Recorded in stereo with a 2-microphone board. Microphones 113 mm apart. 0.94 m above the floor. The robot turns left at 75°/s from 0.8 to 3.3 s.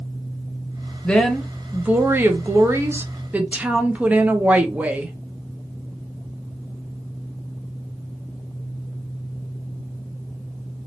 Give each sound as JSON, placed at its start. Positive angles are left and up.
{"t": 1.0, "sound": "a woman speaking", "side_deg": 10, "distance_m": 0.7}